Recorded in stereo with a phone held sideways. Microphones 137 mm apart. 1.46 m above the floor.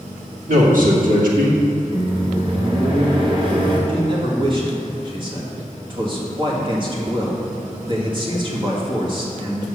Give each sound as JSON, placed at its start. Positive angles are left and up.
{"t": 0.5, "sound": "a man speaking", "side_deg": -80, "distance_m": 2.5}
{"t": 1.9, "sound": "a microwave", "side_deg": -40, "distance_m": 1.8}
{"t": 3.9, "sound": "a man speaking", "side_deg": -35, "distance_m": 1.9}